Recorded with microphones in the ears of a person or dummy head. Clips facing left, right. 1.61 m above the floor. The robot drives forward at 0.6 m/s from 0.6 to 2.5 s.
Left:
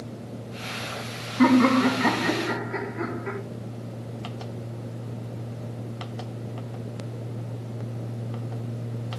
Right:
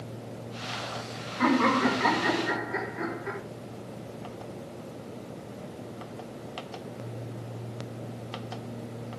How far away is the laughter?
About 3.5 m.